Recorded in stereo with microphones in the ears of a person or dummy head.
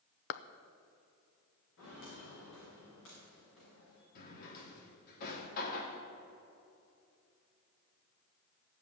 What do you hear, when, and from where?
0.3 s a clap: 55° left (ahead or behind), 0.6 m
1.8 s footsteps: 75° left (ahead or behind), 6 m; by 4.0 s 80° left, 8 m
4.2 s a drawer: 55° left (ahead or behind), 2 m